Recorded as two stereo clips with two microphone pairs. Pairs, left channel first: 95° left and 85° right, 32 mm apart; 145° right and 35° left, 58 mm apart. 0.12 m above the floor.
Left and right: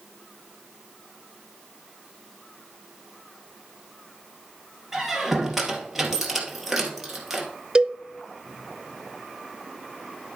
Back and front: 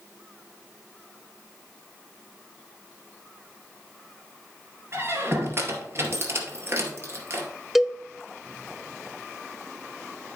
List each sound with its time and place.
4.9 s a squeak: 5° right, 2.5 m
7.8 s a cowbell: 50° right, 0.5 m